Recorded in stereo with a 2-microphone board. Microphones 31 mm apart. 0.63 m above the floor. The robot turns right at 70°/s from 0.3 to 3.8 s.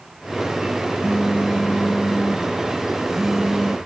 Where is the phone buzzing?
40° left; by 3.8 s 125° right.